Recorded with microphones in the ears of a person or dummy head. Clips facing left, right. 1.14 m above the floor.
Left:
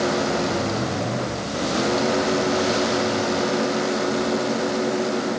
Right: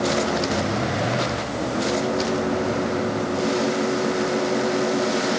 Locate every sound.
Only background noise.